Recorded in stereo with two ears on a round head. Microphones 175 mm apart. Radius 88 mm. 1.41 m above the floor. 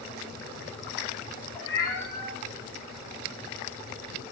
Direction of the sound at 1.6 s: 15° left (ahead or behind).